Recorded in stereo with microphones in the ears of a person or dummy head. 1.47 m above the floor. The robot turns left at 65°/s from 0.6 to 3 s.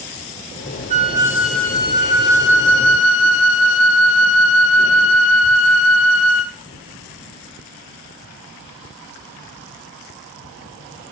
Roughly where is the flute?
Behind right.